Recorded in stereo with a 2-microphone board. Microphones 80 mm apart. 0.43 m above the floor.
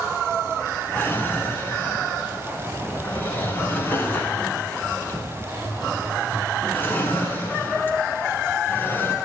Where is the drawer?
25° left (ahead or behind), 1.1 m.